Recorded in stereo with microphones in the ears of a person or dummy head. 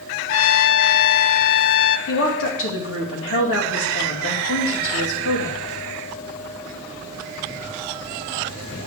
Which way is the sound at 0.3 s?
70° left (ahead or behind).